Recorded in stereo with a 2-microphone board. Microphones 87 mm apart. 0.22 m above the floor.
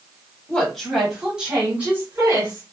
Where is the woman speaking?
10° left (ahead or behind), 1.3 m; by 2.6 s 30° right (ahead or behind), 1.5 m.